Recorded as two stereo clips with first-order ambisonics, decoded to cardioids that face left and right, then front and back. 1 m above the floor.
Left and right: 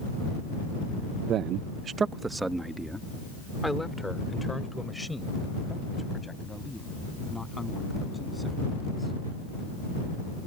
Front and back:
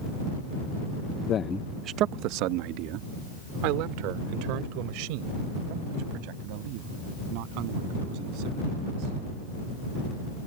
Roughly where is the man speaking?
Ahead right.